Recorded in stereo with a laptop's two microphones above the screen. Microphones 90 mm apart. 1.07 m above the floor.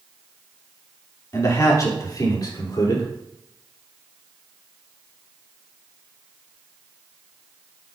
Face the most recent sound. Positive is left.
turn(degrees=50)  # may be behind; listen again after turning